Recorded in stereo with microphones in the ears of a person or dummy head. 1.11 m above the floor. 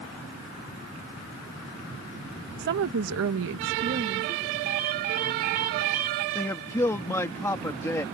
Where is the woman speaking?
45° right (ahead or behind); by 4.5 s 35° right (ahead or behind).